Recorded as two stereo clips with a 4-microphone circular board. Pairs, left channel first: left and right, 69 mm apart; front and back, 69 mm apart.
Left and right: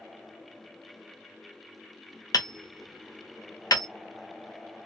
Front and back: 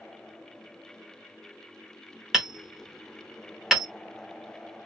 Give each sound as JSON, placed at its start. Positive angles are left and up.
{"t": 2.3, "sound": "hammering", "azimuth_deg": 95, "distance_m": 0.9}